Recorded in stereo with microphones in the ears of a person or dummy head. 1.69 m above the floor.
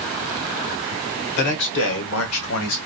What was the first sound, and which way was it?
A man speaking, 60° left (ahead or behind).